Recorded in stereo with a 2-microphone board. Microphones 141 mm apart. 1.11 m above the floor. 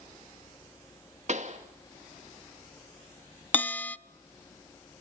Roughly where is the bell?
Centre.